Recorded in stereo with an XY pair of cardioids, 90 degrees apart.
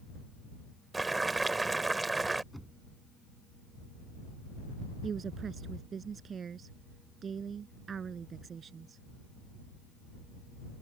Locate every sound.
0.9 s boiling: 25° right
2.5 s knocking: straight ahead
5.0 s a woman speaking: 50° right